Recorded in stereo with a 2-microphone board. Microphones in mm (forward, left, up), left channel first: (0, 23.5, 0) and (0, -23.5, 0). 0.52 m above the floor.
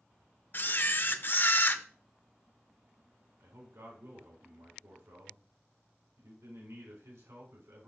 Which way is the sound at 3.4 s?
80° right.